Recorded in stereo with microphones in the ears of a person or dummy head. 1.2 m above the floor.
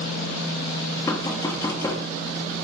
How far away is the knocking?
About 2.0 m.